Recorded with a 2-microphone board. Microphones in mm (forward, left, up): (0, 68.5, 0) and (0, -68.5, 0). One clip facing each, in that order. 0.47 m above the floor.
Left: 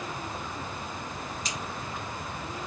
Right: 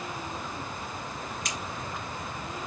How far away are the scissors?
About 2.5 m.